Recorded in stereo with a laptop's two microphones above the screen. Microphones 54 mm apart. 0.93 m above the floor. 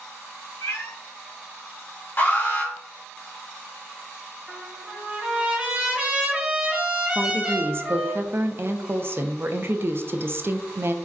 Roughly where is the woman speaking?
Right.